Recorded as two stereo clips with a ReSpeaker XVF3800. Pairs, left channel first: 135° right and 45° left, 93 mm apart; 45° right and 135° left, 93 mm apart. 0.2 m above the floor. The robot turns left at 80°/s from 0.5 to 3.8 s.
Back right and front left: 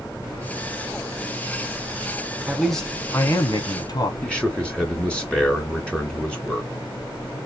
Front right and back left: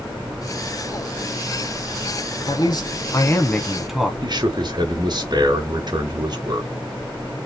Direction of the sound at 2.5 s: 30° right.